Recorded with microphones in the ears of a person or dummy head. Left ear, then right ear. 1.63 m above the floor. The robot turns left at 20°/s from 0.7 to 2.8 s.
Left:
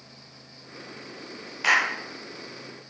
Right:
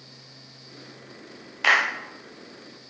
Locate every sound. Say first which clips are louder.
1.6 s a clap: right 2 dB; 20° right (ahead or behind), 0.5 m; by 1.9 s 15° right (ahead or behind), 0.5 m